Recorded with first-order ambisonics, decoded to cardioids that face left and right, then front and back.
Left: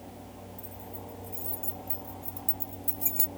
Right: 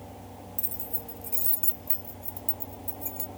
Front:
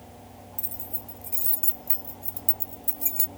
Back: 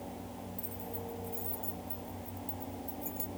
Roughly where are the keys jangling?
Ahead right.